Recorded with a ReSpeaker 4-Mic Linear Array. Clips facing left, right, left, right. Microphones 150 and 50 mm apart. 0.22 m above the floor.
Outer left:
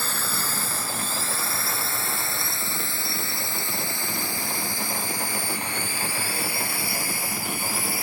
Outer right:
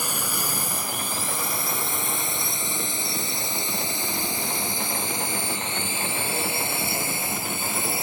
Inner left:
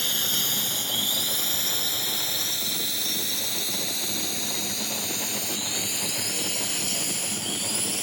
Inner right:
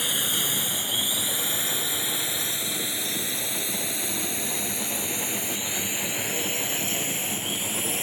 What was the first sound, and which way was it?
A drone, 15° right (ahead or behind).